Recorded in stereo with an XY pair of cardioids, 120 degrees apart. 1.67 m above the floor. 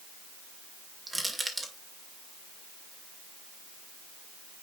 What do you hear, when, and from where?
1.1 s crushing: 15° right, 1.9 m